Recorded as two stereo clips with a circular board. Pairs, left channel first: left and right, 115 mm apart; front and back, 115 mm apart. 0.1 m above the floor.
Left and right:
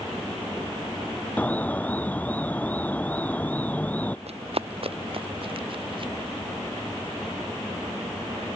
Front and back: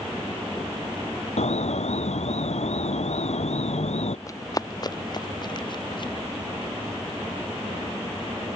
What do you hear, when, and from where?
1.4 s an alarm: 15° left
4.3 s running footsteps: 65° right; by 6.1 s 50° right